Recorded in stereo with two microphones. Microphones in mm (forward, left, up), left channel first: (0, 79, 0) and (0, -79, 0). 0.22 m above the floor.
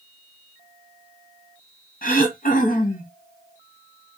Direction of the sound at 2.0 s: 60° left (ahead or behind).